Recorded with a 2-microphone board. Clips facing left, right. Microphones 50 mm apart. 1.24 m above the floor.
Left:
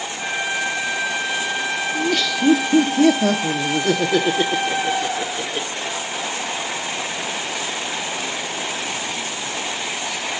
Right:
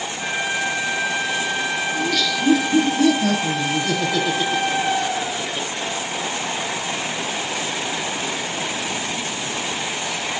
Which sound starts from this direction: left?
Laughter, at 1.9 s.